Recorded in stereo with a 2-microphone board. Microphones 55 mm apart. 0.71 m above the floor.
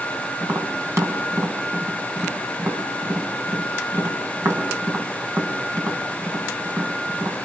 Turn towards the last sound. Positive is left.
turn(degrees=-60)  # may be behind; listen again after turning